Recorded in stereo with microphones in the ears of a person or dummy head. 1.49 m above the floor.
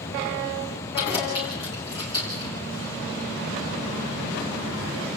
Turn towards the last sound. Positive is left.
turn(degrees=30)  # may be behind; listen again after turning